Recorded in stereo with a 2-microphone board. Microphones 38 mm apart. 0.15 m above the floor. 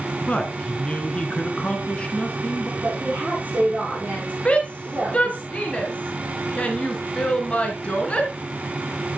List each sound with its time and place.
0.2 s a man speaking: 30° left (ahead or behind), 1.8 m
2.8 s a woman speaking: 35° right (ahead or behind), 5 m
4.5 s a shout: 30° left (ahead or behind), 2 m